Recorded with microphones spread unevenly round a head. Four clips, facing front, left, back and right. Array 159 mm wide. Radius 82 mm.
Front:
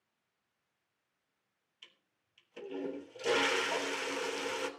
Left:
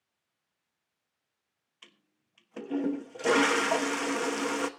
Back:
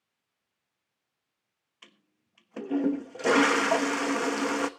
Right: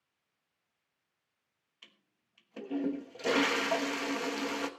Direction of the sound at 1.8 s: 165° left.